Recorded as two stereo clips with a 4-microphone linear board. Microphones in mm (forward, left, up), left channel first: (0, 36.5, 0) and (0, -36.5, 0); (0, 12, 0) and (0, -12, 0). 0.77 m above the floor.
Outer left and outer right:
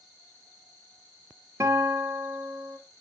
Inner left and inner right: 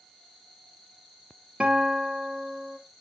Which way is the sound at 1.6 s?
40° right (ahead or behind).